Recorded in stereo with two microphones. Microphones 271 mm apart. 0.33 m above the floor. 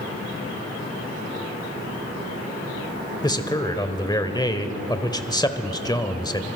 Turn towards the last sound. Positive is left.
turn(degrees=15)  # may be behind; listen again after turning